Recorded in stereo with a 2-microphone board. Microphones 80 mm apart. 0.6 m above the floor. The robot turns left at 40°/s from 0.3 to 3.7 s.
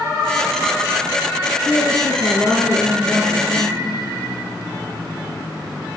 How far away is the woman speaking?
About 8 m.